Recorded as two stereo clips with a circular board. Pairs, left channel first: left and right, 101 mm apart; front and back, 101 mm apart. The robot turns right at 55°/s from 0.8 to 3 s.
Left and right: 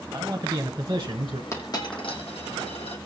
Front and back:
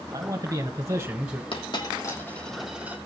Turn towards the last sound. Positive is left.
turn(degrees=110)